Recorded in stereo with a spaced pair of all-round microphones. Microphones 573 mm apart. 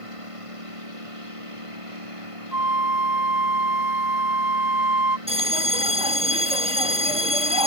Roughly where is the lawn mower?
Right.